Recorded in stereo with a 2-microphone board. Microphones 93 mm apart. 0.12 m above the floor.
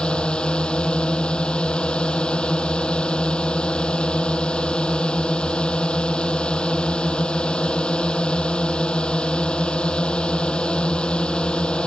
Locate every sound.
0.0 s a drone: 10° left (ahead or behind)